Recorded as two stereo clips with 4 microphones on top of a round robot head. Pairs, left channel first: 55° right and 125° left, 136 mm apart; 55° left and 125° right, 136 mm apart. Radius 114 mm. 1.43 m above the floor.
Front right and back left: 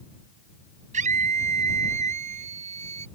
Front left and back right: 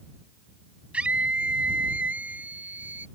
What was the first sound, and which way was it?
A scream, 155° left.